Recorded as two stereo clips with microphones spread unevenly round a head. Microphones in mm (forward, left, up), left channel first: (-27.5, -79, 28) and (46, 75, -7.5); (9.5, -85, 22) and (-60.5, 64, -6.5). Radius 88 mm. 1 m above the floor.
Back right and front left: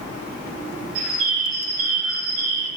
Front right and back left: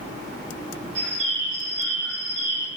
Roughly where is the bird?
Left.